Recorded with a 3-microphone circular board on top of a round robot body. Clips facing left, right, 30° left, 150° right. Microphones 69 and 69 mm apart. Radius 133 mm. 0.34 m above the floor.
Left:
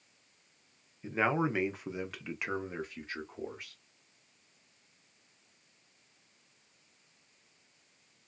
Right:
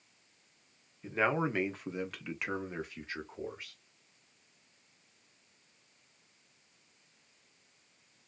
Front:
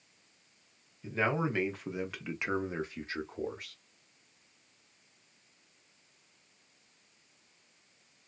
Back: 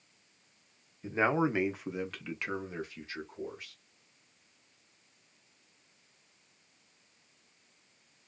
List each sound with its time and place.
1.0 s a man speaking: 170° left, 1.0 m; by 3.8 s straight ahead, 1.3 m